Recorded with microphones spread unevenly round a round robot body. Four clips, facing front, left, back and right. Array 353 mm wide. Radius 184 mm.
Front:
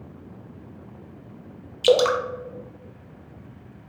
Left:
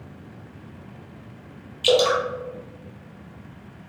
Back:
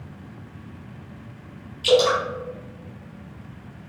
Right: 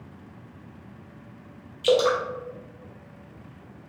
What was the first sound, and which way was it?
Dripping, 35° left.